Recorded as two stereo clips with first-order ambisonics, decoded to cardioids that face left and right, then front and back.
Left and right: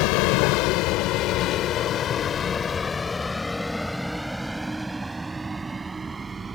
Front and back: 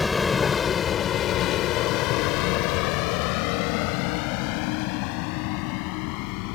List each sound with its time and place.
0.0 s a vehicle: 80° left; by 6.6 s 15° right